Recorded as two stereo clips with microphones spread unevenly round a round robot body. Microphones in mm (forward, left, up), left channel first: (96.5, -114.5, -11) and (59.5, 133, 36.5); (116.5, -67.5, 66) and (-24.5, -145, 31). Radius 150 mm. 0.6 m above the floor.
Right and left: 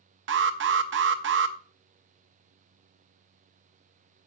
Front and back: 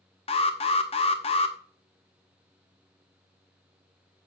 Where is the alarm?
80° left, 0.9 m.